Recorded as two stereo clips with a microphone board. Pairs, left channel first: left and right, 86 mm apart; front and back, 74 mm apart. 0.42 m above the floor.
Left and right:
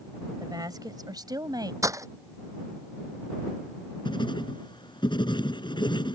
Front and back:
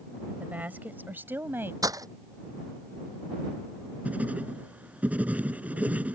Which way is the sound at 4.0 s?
110° left.